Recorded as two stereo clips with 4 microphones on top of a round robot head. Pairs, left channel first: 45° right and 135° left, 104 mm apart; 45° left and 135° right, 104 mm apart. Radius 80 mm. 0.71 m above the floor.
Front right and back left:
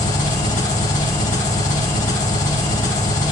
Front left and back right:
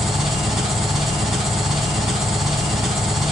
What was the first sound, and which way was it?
An engine running, 50° right.